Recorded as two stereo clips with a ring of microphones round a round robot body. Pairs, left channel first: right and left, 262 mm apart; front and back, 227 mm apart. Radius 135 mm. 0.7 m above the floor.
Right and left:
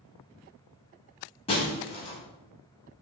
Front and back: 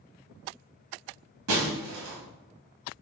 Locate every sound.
1.5 s breaking glass: 160° right, 1.5 m